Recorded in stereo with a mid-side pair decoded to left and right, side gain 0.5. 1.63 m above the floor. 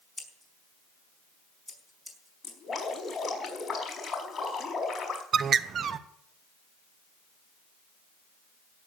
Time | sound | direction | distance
0.2 | scissors | 5° left | 5 m
2.4 | dripping | 30° left | 5 m
5.3 | a bird | 50° right | 1.0 m